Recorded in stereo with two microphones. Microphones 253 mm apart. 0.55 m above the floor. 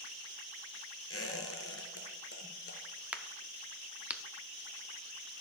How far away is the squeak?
About 1.4 m.